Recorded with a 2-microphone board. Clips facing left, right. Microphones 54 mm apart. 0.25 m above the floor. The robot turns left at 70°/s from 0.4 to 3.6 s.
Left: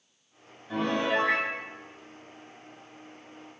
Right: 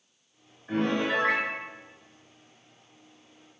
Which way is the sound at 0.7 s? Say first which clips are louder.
Right 1 dB; 100° right.